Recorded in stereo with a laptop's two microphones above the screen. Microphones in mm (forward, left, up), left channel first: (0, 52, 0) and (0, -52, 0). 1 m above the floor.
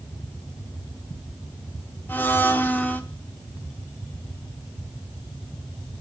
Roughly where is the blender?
Centre.